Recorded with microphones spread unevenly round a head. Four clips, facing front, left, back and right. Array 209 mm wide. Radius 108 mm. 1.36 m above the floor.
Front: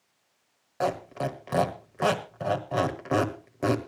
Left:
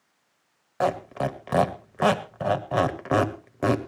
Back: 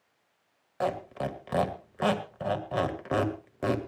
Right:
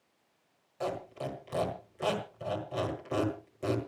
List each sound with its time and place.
0.8 s a squeak: 85° left, 1.4 m